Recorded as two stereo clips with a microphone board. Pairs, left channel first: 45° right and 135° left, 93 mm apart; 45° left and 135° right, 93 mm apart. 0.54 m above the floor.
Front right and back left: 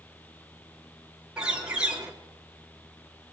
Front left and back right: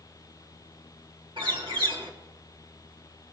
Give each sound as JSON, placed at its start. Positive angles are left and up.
{"t": 1.4, "sound": "a bird", "azimuth_deg": -145, "distance_m": 2.5}